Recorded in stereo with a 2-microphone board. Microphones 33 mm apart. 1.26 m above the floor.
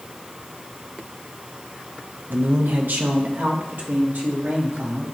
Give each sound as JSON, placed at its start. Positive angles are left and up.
{"t": 2.3, "sound": "a man speaking", "side_deg": -60, "distance_m": 0.8}